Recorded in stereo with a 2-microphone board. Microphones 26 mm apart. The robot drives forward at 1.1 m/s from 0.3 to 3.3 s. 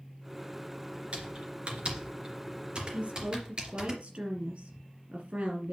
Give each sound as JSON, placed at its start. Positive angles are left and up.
{"t": 1.1, "sound": "typing on a keyboard", "side_deg": -50, "distance_m": 2.5}
{"t": 2.9, "sound": "a woman speaking", "side_deg": -60, "distance_m": 3.5}